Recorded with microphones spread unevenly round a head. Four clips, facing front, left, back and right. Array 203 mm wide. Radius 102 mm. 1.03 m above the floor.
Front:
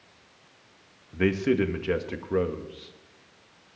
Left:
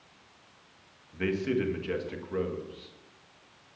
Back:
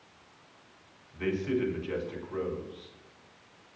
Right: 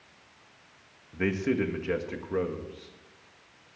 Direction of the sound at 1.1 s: 15° right.